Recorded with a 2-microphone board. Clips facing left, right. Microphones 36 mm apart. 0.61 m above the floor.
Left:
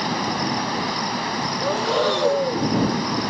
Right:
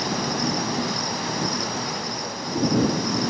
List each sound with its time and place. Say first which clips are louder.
0.0 s an insect: left 2 dB; 25° left (ahead or behind)
1.6 s breathing: left 8 dB; 85° left